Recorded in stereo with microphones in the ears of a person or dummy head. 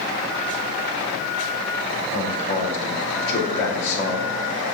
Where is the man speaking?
65° left (ahead or behind), 2.5 m.